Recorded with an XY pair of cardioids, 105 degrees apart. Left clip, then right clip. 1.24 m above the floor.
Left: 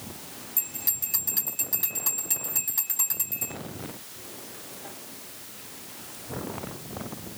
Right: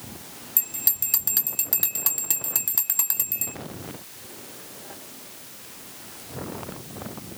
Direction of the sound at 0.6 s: 50° right.